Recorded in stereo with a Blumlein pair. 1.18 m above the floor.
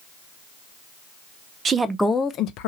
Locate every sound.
1.6 s a woman speaking: 25° right, 0.5 m; by 2.7 s 45° left, 0.6 m